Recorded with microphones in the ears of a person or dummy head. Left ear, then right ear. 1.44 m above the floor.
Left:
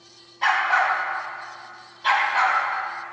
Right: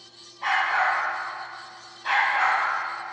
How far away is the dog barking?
About 3.5 m.